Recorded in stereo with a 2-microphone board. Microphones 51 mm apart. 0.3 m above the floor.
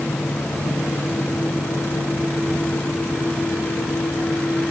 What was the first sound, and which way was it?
Only background noise.